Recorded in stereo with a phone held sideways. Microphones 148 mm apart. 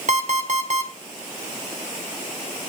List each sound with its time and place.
0.1 s an alarm clock: 55° right (ahead or behind), 1.8 m